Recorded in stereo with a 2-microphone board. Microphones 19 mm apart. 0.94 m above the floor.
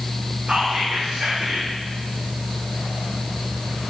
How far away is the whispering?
About 0.7 m.